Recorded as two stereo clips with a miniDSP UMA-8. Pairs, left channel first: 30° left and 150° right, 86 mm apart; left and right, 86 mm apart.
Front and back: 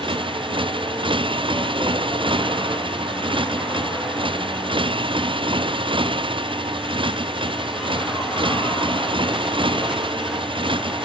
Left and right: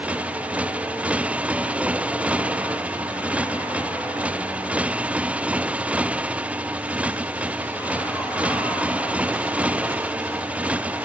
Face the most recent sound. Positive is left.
turn(degrees=-165)